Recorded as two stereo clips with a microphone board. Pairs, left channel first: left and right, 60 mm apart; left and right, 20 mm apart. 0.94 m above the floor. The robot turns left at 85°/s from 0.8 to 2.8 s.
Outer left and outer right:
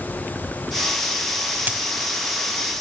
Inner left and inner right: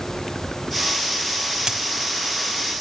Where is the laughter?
No laughter in this recording.